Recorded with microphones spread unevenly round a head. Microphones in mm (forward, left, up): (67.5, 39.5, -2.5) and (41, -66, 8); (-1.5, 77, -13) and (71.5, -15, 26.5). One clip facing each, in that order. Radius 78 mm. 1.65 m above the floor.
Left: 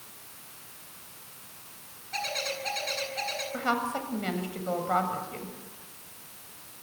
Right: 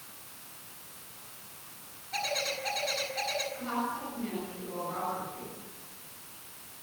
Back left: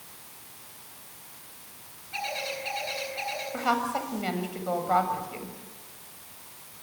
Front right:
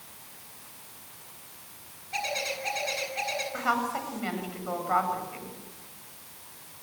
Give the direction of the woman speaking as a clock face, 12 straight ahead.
10 o'clock.